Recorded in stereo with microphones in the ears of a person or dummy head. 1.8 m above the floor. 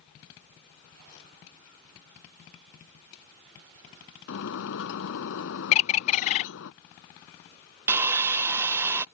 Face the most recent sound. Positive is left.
turn(degrees=-10)  # may be behind; listen again after turning